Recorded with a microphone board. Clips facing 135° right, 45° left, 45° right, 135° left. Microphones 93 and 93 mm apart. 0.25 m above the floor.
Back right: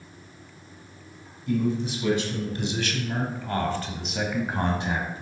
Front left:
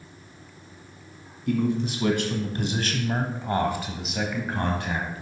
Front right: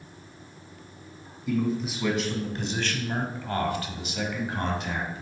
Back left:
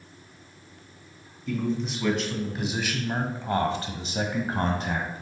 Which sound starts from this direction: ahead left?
A man speaking, at 1.5 s.